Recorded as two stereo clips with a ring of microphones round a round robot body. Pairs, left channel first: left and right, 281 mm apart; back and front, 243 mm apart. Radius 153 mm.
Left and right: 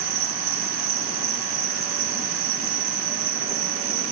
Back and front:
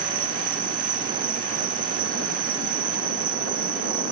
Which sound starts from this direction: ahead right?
An insect, at 0.0 s.